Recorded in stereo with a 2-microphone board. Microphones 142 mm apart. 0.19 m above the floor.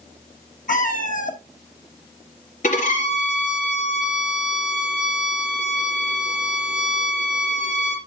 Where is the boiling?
I don't hear boiling.